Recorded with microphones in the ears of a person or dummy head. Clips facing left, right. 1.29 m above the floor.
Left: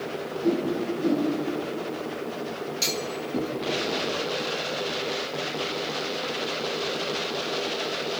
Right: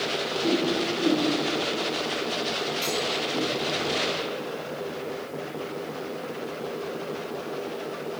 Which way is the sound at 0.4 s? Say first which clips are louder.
Left 1 dB; 10° left (ahead or behind).